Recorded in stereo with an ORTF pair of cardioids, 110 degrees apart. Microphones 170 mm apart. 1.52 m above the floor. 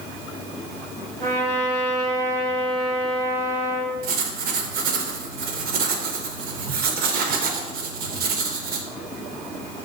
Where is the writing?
65° right, 0.7 m.